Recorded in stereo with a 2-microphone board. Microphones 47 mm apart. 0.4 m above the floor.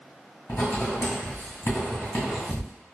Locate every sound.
0.5 s writing: 70° left (ahead or behind), 1.9 m